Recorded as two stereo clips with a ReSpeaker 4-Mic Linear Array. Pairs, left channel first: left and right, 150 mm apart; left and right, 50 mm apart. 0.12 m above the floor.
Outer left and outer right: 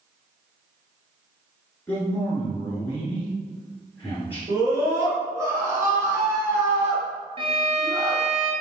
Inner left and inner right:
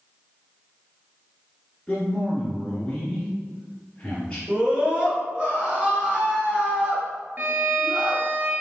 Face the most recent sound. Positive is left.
turn(degrees=-40)  # may be behind; listen again after turning